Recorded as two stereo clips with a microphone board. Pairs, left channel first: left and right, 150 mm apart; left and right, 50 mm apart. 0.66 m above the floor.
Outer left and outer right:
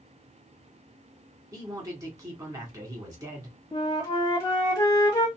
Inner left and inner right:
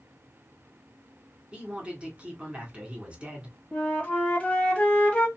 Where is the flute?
20° left (ahead or behind), 1.4 m.